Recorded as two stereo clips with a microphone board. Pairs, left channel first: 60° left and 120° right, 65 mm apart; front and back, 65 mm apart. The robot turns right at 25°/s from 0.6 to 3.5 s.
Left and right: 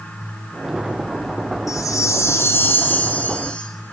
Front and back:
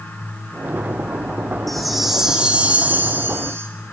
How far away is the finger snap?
I don't hear a finger snap.